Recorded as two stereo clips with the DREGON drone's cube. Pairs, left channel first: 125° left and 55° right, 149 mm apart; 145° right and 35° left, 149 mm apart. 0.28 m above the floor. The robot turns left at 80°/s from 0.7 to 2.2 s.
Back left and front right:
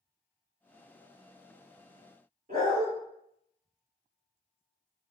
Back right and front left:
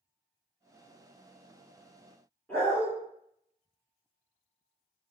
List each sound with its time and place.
2.5 s a dog barking: 70° right, 1.7 m